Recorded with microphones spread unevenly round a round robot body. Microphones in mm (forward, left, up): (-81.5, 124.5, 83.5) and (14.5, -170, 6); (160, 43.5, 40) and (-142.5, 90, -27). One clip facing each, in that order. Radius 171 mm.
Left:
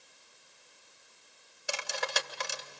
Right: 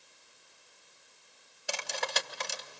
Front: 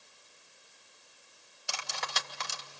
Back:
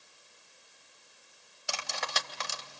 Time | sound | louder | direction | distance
1.7 | cutlery clinking | even, back 3 dB | 165° right | 2.5 m